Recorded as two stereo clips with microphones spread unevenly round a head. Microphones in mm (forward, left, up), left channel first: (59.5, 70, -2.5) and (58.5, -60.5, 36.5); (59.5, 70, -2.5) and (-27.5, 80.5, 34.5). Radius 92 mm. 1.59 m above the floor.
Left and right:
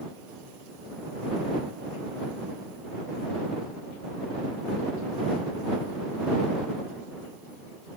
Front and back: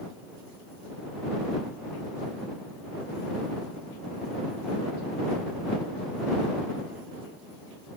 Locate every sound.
Only background noise.